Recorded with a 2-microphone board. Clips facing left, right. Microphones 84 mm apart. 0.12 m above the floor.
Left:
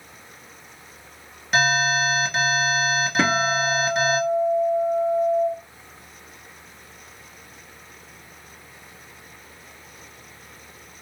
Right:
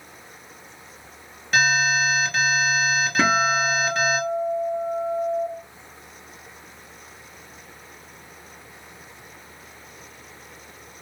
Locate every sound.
1.5 s an alarm: centre (ahead or behind), 1.8 m
3.2 s a guitar: centre (ahead or behind), 0.6 m